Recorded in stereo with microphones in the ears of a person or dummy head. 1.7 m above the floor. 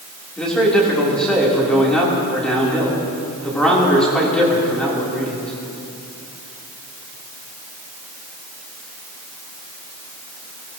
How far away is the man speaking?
About 3.5 m.